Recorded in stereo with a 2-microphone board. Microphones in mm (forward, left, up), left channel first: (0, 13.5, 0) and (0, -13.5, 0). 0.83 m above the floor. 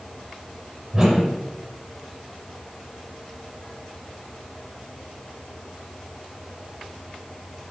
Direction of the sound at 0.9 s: 20° right (ahead or behind).